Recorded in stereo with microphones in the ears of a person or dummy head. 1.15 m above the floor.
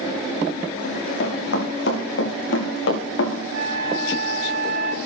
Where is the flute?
75° right (ahead or behind), 1.3 m.